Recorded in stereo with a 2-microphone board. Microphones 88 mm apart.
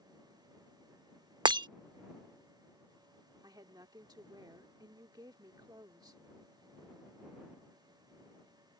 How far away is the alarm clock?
No alarm clock in this recording.